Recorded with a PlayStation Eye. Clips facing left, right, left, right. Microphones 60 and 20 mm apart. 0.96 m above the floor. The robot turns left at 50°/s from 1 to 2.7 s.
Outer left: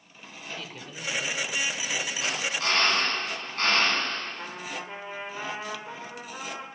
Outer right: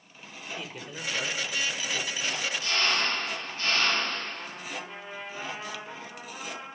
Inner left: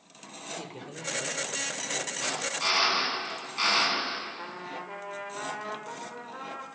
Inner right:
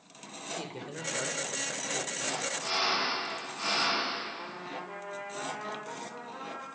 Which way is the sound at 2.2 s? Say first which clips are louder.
Outer left 3 dB, inner left 4 dB; 85° left.